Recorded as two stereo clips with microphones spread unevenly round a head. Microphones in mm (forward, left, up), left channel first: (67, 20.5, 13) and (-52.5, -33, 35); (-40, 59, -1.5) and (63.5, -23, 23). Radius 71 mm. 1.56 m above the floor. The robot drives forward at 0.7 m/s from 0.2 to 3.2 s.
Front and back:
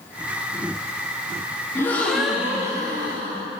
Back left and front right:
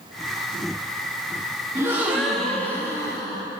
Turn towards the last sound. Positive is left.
turn(degrees=-150)